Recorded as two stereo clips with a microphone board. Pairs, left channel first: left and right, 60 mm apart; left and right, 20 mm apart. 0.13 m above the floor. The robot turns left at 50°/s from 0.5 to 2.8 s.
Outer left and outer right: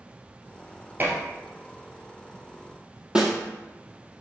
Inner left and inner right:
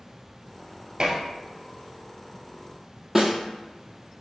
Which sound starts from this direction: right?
Dishes clattering, at 1.0 s.